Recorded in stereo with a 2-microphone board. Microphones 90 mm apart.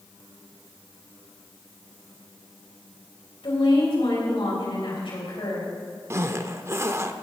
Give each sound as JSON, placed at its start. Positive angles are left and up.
{"t": 3.4, "sound": "a woman speaking", "side_deg": 75, "distance_m": 5.0}
{"t": 6.1, "sound": "a zipper", "side_deg": -30, "distance_m": 0.6}